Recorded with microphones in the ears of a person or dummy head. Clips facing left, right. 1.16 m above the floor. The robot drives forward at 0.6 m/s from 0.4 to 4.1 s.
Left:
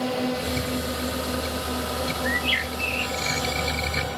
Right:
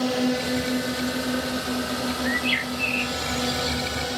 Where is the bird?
5° left (ahead or behind); by 3.8 s centre (ahead or behind).